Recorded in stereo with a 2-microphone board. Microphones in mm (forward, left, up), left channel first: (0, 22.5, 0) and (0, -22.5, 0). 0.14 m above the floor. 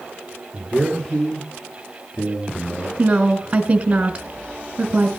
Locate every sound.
0.5 s a man speaking: centre (ahead or behind), 3 m; by 2.9 s 25° left (ahead or behind), 2.5 m
3.0 s a woman speaking: 20° right (ahead or behind), 1.2 m